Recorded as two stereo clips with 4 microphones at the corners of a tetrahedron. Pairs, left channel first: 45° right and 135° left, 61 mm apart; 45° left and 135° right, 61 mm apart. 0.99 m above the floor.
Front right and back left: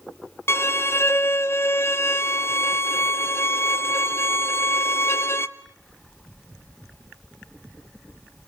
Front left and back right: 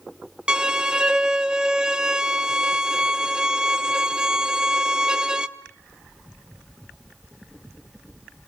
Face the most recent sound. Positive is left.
turn(degrees=-65)